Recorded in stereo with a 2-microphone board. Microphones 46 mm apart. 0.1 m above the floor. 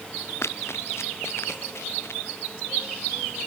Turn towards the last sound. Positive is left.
turn(degrees=65)  # may be behind; listen again after turning